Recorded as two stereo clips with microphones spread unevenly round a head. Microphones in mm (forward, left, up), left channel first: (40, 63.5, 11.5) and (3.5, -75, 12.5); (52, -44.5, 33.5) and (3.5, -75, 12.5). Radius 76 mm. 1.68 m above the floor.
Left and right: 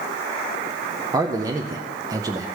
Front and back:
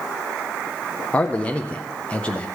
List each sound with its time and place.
1.1 s a man speaking: 40° right, 0.6 m